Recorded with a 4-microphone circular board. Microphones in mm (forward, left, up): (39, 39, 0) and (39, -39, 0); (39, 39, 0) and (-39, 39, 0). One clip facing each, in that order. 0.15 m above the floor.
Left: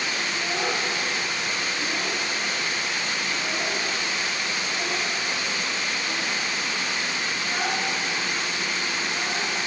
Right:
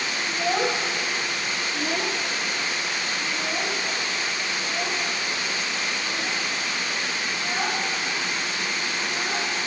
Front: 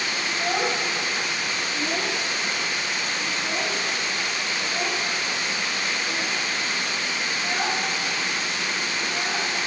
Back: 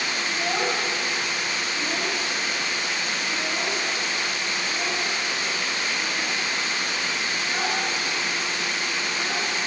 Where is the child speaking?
85° right, 1.9 m; by 9.5 s 15° right, 9.5 m.